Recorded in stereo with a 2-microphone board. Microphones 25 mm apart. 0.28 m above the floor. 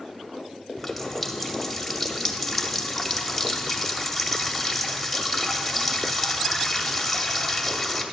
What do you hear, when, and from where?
0.8 s a running tap: 5° left (ahead or behind), 0.7 m